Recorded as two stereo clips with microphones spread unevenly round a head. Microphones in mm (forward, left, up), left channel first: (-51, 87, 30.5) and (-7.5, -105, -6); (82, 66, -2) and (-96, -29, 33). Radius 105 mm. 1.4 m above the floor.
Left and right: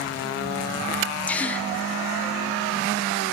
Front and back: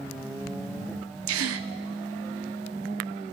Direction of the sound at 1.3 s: 170° right.